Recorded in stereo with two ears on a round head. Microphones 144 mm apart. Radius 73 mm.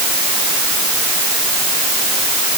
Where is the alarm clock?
No alarm clock in this recording.